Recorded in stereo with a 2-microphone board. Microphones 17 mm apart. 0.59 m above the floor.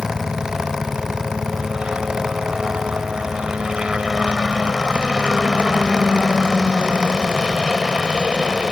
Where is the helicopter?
60° right (ahead or behind).